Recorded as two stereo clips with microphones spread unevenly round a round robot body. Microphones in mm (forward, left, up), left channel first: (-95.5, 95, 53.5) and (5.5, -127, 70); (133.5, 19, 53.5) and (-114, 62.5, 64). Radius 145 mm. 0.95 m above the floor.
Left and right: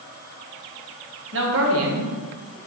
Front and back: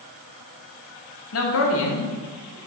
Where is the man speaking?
30° right, 1.3 m; by 2.6 s 60° right, 1.2 m.